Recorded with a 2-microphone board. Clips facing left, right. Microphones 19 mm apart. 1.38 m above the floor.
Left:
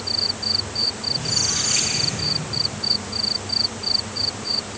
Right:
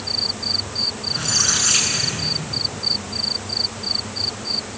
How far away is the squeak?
About 9 m.